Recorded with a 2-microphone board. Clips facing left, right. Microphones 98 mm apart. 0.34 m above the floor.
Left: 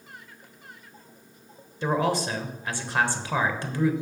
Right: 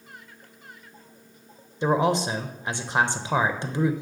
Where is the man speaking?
20° right (ahead or behind), 1.0 m.